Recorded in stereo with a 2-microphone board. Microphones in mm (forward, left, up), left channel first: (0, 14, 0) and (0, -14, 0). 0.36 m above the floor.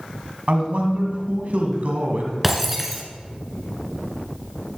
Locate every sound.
0.5 s a man speaking: 60° right (ahead or behind), 2.5 m
2.4 s breaking glass: 10° right (ahead or behind), 2.5 m